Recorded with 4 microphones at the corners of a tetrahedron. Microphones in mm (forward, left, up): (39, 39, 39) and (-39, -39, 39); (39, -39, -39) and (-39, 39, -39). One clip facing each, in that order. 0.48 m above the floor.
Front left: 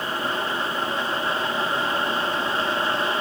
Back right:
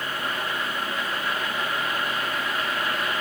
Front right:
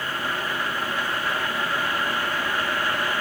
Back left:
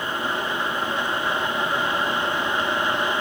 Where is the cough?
I don't hear a cough.